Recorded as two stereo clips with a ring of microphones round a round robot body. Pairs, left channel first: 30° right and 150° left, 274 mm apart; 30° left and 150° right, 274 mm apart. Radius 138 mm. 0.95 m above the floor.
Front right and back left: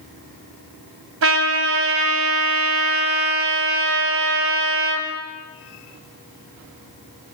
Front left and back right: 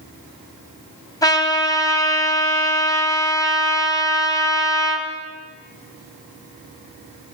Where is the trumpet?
105° left, 2.5 m.